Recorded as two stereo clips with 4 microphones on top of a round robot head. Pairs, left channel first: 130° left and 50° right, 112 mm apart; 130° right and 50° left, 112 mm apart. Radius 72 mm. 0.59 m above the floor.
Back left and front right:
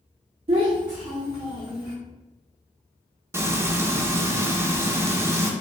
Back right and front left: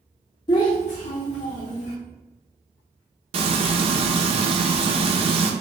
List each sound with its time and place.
0.5 s a child speaking: 85° right, 0.6 m; by 1.9 s 120° right, 1.5 m
3.3 s frying: 15° left, 0.6 m